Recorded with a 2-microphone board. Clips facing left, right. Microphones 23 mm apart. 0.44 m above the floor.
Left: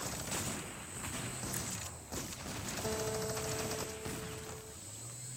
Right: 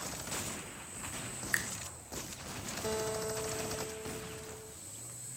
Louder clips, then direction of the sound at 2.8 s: Right 2 dB; 20° right (ahead or behind).